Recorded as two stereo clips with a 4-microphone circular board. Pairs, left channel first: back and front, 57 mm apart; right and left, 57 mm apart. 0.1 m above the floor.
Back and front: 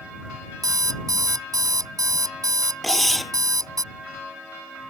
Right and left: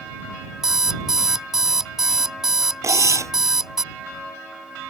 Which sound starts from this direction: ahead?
An alarm clock, at 0.6 s.